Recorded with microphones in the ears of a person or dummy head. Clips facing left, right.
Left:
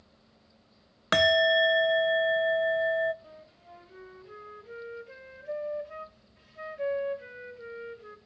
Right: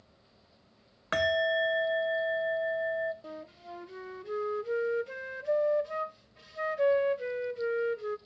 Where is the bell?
60° left (ahead or behind), 0.6 m.